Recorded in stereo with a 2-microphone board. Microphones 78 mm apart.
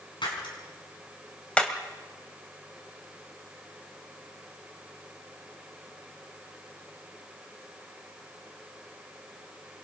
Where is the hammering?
15° left (ahead or behind), 2.5 m.